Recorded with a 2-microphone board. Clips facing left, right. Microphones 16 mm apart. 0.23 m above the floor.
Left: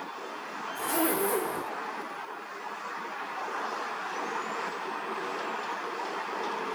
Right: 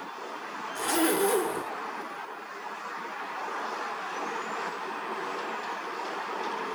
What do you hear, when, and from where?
0.8 s a zipper: 40° right (ahead or behind), 0.9 m